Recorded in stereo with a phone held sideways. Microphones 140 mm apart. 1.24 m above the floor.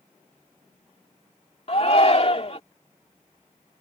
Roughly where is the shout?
Left.